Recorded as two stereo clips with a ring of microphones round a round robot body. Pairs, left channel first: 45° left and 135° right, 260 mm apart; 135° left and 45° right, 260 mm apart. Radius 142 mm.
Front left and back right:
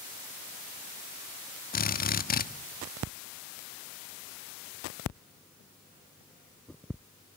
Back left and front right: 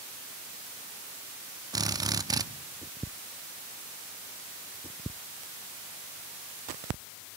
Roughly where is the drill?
Ahead.